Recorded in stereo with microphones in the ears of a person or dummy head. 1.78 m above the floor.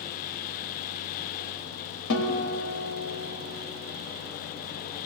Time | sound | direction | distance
2.1 | a guitar | 75° left (ahead or behind) | 1.6 m